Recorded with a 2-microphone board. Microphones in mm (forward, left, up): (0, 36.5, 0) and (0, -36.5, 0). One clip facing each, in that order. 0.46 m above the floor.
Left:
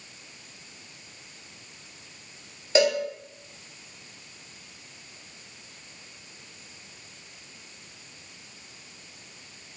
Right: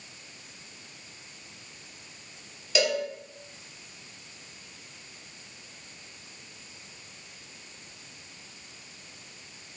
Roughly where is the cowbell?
Left.